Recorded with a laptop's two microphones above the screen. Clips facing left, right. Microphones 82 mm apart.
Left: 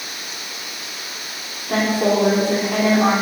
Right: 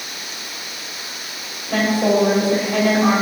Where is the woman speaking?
70° left (ahead or behind), 3 m.